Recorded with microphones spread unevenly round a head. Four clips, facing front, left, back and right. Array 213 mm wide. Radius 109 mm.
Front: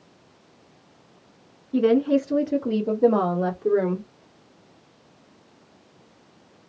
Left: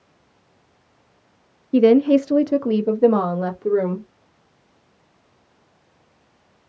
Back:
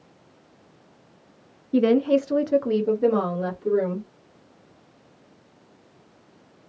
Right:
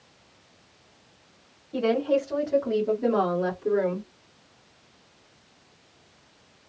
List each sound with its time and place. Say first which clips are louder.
1.7 s a woman speaking: left 10 dB, even; 120° left, 0.5 m; by 4.1 s 40° left, 1.4 m